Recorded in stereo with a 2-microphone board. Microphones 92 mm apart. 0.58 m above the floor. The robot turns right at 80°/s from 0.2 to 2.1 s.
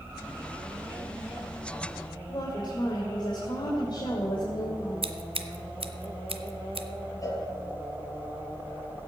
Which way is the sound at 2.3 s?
55° left (ahead or behind).